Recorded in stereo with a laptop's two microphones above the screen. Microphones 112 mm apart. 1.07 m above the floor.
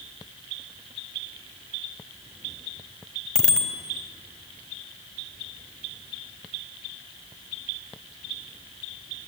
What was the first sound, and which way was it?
A bicycle bell, 10° left (ahead or behind).